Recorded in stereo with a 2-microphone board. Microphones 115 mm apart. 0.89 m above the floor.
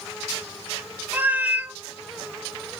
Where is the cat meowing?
15° right (ahead or behind), 0.7 m.